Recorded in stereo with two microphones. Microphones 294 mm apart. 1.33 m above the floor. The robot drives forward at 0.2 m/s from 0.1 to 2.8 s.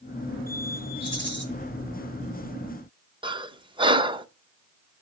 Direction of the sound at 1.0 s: 40° right (ahead or behind).